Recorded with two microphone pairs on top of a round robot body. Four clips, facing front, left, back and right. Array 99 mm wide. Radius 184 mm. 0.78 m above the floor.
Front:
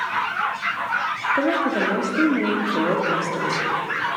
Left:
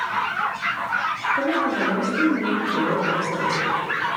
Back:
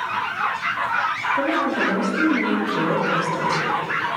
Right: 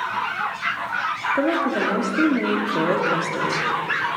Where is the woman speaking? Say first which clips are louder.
Right 2 dB, front 1 dB; 50° right, 2.5 m.